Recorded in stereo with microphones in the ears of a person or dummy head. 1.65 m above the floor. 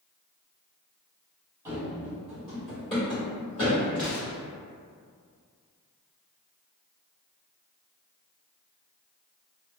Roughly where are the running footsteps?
Centre.